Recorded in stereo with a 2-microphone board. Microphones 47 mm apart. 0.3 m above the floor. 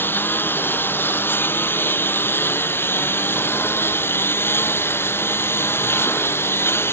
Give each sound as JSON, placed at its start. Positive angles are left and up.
{"t": 0.0, "sound": "a lawn mower", "side_deg": 50}